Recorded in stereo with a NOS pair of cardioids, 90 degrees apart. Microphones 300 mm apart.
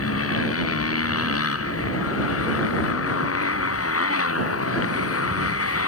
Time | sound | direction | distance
0.0 | a motorcycle | 50° left | ?